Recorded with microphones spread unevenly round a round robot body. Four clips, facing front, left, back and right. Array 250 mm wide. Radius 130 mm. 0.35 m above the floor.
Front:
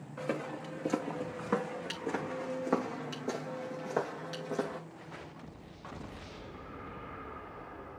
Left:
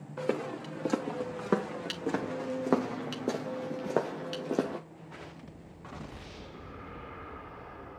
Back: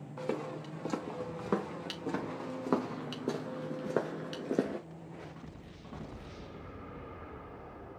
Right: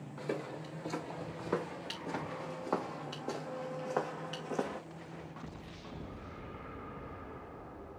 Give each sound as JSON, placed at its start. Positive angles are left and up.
{"t": 0.2, "sound": "footsteps", "azimuth_deg": 100, "distance_m": 4.0}